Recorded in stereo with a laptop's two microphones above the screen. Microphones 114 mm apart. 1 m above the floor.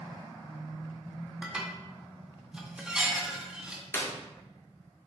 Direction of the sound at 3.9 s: 20° left (ahead or behind).